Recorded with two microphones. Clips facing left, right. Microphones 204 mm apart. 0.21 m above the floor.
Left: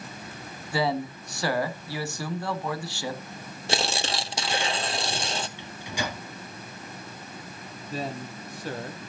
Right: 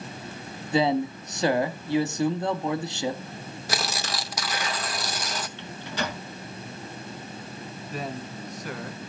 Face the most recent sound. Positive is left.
turn(degrees=30)  # may be behind; listen again after turning